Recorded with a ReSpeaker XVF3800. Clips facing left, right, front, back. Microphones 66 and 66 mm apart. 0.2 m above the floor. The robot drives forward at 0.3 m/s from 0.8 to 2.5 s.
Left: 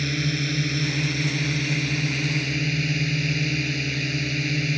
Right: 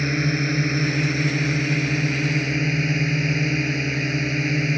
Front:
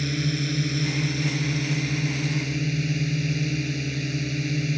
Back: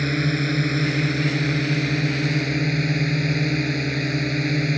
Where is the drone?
145° right; by 4.8 s 150° right.